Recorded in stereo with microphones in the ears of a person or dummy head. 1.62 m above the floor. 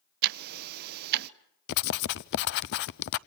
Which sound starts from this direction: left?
Writing, at 1.7 s.